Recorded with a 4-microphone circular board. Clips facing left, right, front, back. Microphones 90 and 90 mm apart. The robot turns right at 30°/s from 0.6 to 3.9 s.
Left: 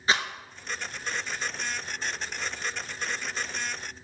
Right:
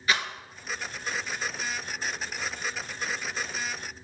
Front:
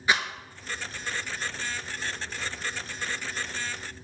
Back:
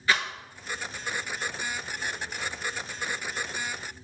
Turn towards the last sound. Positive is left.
turn(degrees=160)